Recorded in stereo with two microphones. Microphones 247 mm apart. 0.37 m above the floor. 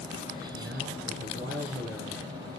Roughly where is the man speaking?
Right.